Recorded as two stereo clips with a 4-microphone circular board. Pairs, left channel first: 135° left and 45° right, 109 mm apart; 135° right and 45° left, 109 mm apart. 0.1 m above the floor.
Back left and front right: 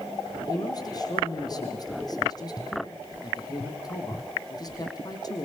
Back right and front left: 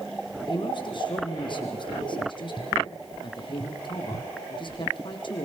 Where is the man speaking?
175° right, 4 m.